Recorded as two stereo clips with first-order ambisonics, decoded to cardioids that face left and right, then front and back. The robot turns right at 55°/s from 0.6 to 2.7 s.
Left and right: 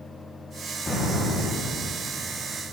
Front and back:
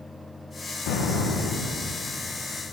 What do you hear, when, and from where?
0.9 s an explosion: 20° left, 1.8 m; by 1.9 s 75° left, 1.8 m